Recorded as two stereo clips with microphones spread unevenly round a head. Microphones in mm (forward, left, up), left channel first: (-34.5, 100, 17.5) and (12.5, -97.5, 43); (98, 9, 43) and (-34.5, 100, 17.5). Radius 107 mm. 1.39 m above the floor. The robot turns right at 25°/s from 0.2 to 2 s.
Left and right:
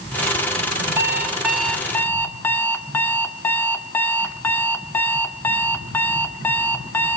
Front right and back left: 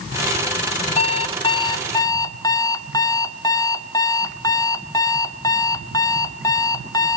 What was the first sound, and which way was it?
An alarm clock, 5° right.